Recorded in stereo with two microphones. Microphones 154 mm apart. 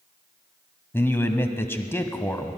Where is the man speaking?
15° left (ahead or behind), 1.1 m.